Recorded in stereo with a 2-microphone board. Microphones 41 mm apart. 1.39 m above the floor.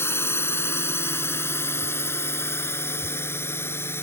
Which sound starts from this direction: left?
A drone, at 0.0 s.